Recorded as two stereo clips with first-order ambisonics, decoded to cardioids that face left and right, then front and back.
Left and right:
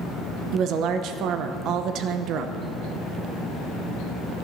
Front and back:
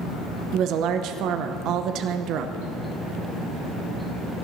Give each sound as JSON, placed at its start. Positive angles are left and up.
{"t": 0.5, "sound": "a woman speaking", "azimuth_deg": -135, "distance_m": 0.8}